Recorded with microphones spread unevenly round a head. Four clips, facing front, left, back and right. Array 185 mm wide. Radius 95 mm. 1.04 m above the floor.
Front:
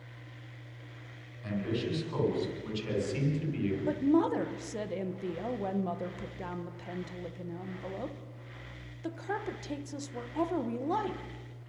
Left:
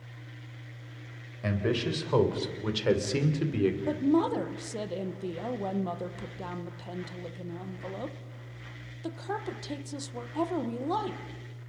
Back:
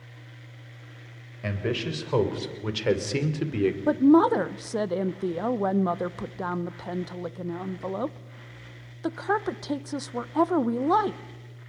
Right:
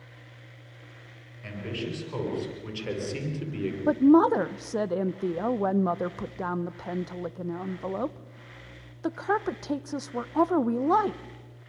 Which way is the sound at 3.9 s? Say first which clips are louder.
Right 12 dB, back 9 dB; 140° right.